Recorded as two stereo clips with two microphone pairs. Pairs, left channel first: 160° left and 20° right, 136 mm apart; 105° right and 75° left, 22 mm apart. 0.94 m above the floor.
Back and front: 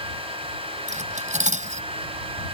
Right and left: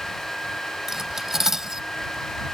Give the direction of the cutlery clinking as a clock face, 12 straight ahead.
12 o'clock.